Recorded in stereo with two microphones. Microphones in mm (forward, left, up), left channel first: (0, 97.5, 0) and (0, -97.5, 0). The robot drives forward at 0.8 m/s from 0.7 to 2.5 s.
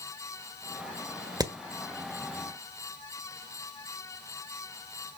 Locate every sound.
1.4 s hammering: 20° right (ahead or behind), 1.2 m